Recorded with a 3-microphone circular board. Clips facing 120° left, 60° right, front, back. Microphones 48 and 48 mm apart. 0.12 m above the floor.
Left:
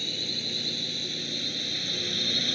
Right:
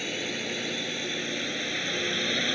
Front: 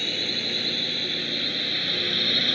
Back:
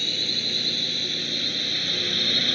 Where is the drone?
60° right; by 2.5 s 80° right.